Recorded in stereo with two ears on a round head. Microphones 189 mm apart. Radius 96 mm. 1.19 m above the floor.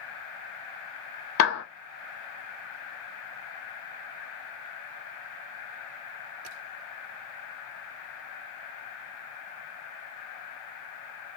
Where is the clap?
75° left (ahead or behind), 0.7 m.